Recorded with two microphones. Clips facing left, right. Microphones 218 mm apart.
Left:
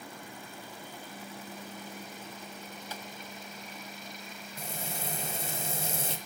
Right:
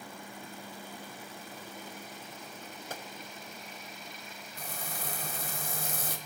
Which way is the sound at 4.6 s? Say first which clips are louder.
Left 3 dB; 25° left (ahead or behind).